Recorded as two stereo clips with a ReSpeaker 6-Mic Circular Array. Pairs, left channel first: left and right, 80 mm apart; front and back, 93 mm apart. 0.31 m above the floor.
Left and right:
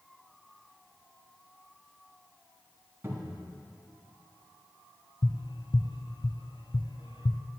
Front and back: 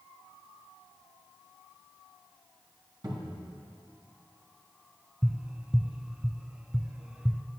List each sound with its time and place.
3.0 s a cupboard door: 145° right, 2.5 m
5.2 s tapping: 100° left, 0.6 m